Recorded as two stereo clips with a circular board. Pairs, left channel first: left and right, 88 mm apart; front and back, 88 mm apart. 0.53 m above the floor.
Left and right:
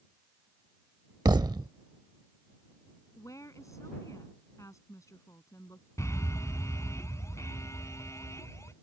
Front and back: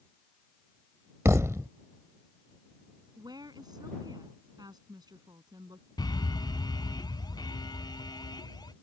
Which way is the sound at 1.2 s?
125° right.